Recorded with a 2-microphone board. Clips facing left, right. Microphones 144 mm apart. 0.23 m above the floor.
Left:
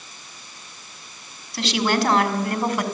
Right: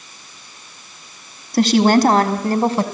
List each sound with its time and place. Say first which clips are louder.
1.5 s a woman speaking: right 9 dB; 50° right (ahead or behind), 1.5 m; by 2.9 s 30° right (ahead or behind), 1.6 m